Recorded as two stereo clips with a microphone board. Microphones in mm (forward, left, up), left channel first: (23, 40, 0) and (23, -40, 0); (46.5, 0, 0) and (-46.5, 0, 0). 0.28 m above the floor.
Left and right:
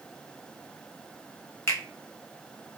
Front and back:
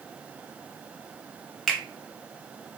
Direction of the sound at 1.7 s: 85° left.